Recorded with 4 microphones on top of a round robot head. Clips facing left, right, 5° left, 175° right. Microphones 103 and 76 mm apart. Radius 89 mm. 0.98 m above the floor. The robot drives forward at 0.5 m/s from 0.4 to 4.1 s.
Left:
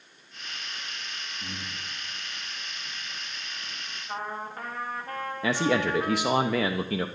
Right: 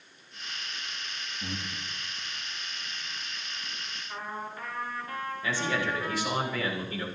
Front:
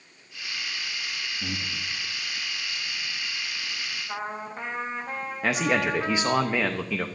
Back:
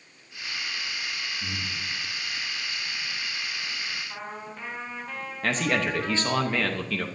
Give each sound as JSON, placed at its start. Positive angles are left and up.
{"t": 1.4, "sound": "breathing", "azimuth_deg": -5, "distance_m": 2.0}
{"t": 4.1, "sound": "a trumpet", "azimuth_deg": 50, "distance_m": 3.5}
{"t": 5.4, "sound": "a man speaking", "azimuth_deg": 80, "distance_m": 1.0}